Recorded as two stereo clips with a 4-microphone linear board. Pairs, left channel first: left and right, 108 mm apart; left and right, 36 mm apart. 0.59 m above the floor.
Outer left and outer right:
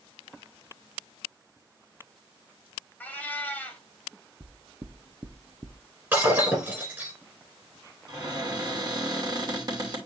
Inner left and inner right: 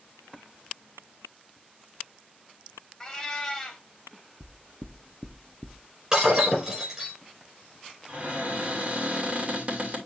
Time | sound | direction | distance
3.0 | a cat meowing | 15° left (ahead or behind) | 1.7 m
4.4 | knocking | 30° right (ahead or behind) | 0.6 m
6.1 | breaking glass | 20° right (ahead or behind) | 6 m
8.1 | a cupboard door | 40° right (ahead or behind) | 2.5 m